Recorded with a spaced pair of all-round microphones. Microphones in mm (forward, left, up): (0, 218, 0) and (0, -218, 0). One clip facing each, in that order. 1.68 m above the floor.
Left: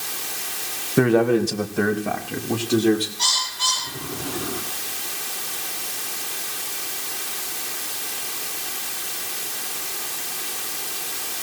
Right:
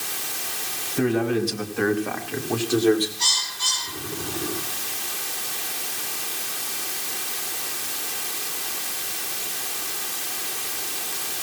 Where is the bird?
80° left, 5.5 m.